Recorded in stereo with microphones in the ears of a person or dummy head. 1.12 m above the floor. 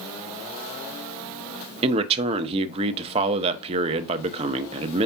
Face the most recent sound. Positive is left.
turn(degrees=-30)  # may be behind; listen again after turning